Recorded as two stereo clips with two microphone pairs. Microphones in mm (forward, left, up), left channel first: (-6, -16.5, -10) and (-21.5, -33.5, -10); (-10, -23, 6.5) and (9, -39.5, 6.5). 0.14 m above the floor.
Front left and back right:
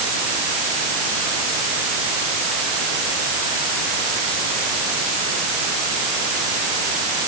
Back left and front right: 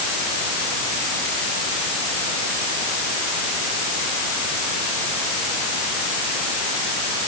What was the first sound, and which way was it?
Only background noise.